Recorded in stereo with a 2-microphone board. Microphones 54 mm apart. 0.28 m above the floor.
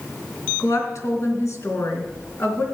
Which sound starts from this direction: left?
A woman speaking, at 0.6 s.